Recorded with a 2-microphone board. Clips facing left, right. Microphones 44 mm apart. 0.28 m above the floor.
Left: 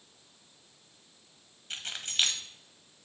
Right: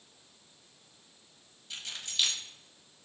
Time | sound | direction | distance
1.7 | keys jangling | 50° left (ahead or behind) | 0.9 m